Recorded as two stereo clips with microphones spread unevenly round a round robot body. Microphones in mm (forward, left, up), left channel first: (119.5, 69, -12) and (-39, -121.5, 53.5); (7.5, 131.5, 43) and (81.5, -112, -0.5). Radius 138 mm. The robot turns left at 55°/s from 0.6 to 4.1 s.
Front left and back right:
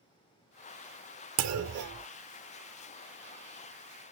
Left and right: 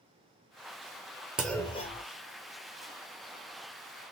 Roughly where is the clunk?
Behind.